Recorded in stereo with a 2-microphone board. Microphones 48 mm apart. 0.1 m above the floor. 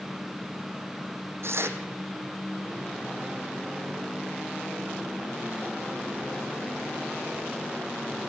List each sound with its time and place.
1.4 s tearing paper: 60° right (ahead or behind), 1.4 m